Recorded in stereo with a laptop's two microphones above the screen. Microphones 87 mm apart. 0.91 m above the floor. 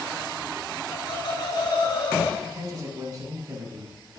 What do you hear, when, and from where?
0.9 s laughter: 55° left (ahead or behind), 2.5 m; by 2.3 s 45° left (ahead or behind), 1.2 m
2.4 s a man speaking: 45° right (ahead or behind), 6 m